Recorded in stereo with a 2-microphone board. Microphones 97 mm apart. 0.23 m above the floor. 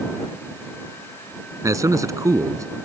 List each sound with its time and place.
1.6 s a man speaking: 35° right (ahead or behind)